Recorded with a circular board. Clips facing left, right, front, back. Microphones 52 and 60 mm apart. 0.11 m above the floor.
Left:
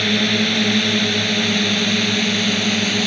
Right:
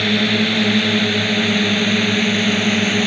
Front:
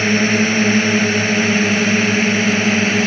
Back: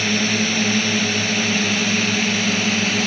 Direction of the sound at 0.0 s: 10° right.